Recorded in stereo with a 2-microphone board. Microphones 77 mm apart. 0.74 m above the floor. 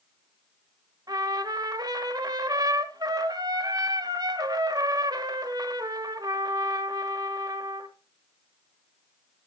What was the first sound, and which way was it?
A trumpet, 55° right (ahead or behind).